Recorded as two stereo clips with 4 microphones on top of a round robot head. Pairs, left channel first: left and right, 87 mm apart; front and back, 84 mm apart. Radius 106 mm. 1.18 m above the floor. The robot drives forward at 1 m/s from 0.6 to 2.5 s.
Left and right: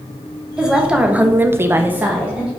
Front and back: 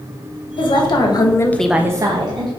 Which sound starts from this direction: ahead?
A woman speaking, at 0.6 s.